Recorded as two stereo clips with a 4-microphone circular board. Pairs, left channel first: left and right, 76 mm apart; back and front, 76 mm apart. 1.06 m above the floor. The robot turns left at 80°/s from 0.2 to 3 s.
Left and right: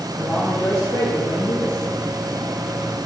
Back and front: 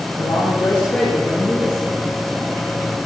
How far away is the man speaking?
About 2.5 m.